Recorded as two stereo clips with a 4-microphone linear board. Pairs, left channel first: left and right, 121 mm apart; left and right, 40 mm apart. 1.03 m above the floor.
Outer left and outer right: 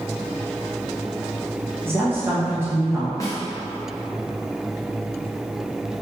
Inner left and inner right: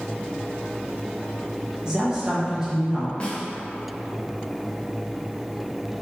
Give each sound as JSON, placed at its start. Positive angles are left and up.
{"t": 1.9, "sound": "a woman speaking", "side_deg": -20, "distance_m": 1.0}
{"t": 3.2, "sound": "a snare drum", "side_deg": 25, "distance_m": 0.7}